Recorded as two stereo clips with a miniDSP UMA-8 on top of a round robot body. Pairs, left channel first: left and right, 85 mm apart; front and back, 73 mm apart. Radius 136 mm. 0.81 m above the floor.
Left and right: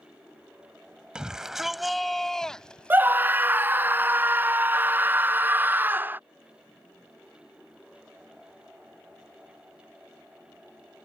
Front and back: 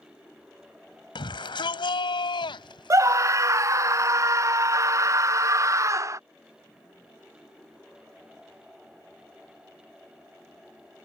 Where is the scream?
150° right.